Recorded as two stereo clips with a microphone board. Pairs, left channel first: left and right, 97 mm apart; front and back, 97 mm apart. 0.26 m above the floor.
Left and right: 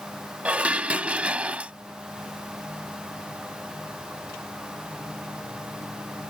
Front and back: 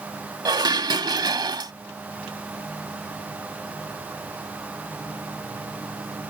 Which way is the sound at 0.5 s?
165° right.